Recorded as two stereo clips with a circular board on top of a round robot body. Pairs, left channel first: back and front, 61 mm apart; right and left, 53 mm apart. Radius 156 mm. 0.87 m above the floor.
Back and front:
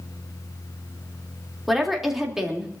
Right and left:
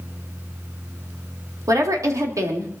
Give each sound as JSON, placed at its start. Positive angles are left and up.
{"t": 1.7, "sound": "a woman speaking", "azimuth_deg": 90, "distance_m": 3.0}